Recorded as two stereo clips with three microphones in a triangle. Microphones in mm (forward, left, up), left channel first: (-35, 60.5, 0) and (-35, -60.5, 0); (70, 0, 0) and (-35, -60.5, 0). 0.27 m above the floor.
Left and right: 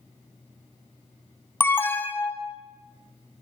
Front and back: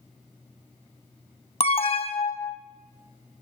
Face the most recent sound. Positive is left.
turn(degrees=20)